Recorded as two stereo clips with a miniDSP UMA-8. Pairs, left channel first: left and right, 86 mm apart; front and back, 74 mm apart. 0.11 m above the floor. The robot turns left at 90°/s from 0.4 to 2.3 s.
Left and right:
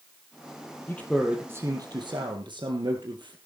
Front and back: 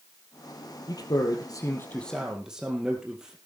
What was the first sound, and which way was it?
A man speaking, 30° left.